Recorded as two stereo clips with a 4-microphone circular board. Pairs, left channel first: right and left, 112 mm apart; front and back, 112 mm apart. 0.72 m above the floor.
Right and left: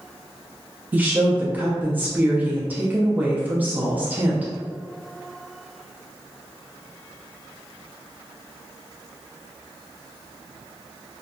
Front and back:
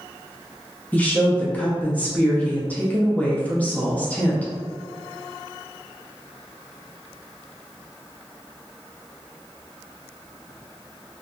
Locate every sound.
0.9 s a woman speaking: 50° left, 0.6 m